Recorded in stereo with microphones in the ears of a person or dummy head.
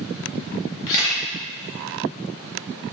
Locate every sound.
0.9 s a camera shutter: 60° left (ahead or behind), 0.7 m